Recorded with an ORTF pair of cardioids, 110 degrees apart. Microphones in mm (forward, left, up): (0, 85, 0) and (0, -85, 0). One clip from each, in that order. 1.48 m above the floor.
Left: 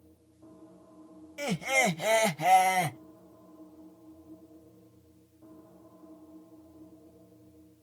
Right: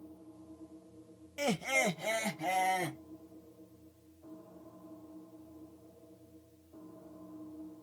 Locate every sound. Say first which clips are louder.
1.4 s laughter: left 4 dB; 5° right, 0.7 m; by 3.0 s 80° left, 1.3 m